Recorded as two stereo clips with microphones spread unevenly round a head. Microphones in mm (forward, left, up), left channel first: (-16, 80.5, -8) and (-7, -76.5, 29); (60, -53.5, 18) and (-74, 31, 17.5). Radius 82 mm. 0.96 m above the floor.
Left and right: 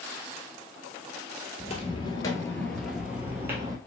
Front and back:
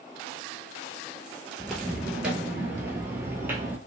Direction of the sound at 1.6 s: 55° left.